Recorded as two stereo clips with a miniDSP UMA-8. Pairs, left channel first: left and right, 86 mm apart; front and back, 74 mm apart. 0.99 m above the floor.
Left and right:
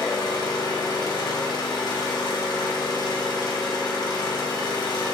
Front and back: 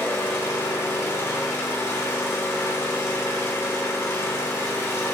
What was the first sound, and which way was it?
An engine running, 55° left.